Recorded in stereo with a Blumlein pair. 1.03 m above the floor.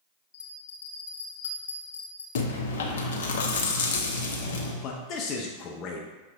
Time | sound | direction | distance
0.3 | a bell | 65° left | 0.9 m
2.4 | chewing | 60° left | 0.7 m
4.8 | a man speaking | 35° left | 0.5 m